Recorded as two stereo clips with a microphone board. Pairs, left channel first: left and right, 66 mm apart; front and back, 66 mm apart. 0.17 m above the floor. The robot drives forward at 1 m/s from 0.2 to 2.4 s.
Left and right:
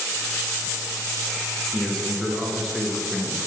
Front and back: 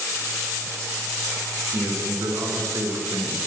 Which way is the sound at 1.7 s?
175° left.